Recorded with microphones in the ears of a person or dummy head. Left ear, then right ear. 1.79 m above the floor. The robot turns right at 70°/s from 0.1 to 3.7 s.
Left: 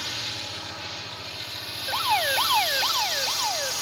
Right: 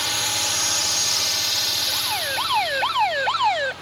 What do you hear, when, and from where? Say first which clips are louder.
0.0 s a drone: right 8 dB; 150° right; by 3.8 s 100° left
1.9 s an alarm: even; 130° left; by 3.7 s 100° right